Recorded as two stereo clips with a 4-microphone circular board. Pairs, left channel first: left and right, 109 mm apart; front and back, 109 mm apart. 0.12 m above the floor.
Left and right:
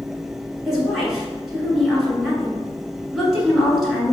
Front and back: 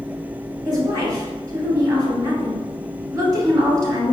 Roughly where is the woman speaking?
Behind.